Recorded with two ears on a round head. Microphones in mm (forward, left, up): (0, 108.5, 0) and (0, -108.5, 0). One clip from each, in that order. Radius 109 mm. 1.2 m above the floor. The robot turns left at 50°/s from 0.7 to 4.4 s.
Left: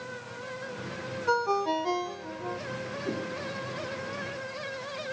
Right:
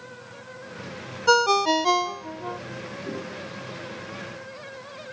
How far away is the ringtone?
About 0.6 m.